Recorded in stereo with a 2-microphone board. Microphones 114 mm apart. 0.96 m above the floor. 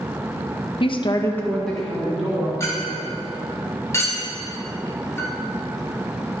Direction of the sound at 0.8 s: 50° left (ahead or behind).